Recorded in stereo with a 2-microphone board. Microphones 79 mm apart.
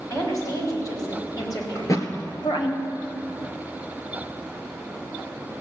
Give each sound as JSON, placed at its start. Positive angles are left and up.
{"t": 0.1, "sound": "a woman speaking", "side_deg": 45, "distance_m": 5.0}
{"t": 1.8, "sound": "a thud", "side_deg": 45, "distance_m": 1.7}